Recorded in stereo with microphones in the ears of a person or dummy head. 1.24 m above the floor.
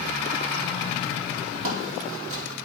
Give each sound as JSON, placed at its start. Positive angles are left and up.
{"t": 1.6, "sound": "footsteps", "side_deg": -50, "distance_m": 1.9}